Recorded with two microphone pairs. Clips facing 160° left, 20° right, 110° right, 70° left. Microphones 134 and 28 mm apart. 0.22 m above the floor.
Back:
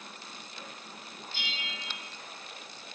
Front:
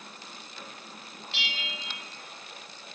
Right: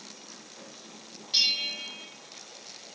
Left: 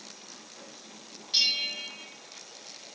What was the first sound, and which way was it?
A bell, 25° right.